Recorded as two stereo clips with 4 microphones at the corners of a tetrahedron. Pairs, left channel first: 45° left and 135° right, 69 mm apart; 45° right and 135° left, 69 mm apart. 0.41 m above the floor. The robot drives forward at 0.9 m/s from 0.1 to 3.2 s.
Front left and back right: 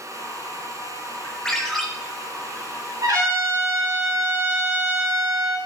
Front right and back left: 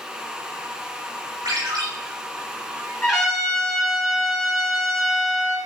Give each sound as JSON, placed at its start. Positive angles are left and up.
{"t": 1.4, "sound": "a ringtone", "azimuth_deg": 125, "distance_m": 1.9}
{"t": 3.0, "sound": "a trumpet", "azimuth_deg": -135, "distance_m": 3.0}